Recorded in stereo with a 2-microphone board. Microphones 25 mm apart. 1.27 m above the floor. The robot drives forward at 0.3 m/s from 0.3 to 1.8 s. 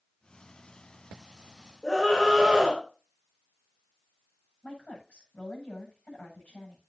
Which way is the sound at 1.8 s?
25° left (ahead or behind).